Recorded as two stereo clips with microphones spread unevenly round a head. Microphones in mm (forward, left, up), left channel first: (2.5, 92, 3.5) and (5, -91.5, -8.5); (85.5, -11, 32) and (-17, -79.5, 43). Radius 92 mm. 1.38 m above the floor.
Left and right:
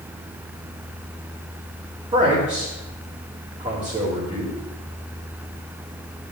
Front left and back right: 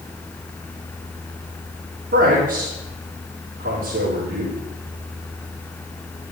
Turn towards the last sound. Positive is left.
turn(degrees=-155)